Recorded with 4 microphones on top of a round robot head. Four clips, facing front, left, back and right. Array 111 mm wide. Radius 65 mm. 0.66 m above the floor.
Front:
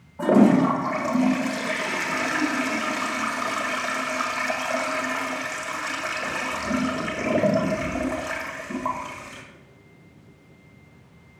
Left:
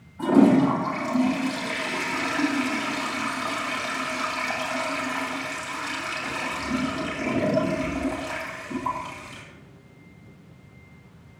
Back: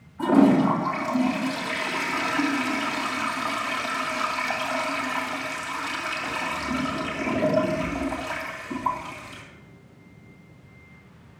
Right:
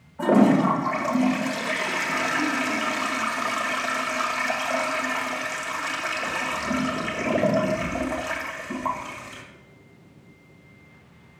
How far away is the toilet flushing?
About 1.8 m.